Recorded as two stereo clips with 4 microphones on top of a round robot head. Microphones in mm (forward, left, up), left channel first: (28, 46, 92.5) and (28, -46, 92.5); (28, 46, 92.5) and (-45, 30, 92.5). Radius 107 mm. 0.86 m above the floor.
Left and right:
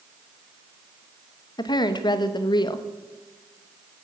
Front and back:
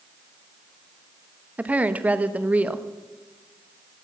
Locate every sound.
1.6 s a woman speaking: 125° left, 0.9 m